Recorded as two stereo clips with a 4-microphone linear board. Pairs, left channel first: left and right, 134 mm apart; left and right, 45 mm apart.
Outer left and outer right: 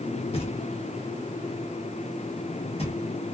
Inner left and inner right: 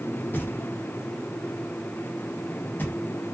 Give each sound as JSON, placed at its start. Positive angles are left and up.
{"t": 0.3, "sound": "knocking", "side_deg": 50, "distance_m": 1.0}